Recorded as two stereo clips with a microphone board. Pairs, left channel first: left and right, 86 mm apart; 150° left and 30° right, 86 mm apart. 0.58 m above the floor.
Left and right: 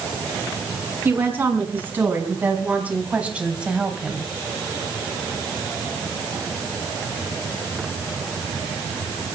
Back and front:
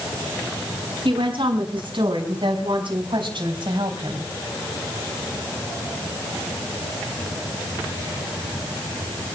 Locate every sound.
1.1 s a woman speaking: 25° right, 6 m; by 4.3 s 5° right, 3 m